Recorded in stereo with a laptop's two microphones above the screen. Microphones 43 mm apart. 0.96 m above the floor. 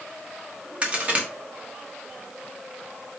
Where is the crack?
25° right (ahead or behind), 1.1 m.